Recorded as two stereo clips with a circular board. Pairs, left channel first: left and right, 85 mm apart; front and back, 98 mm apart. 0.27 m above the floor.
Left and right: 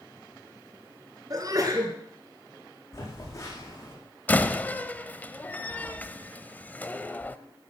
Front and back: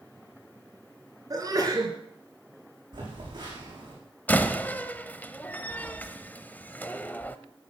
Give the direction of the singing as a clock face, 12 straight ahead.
I don't hear singing.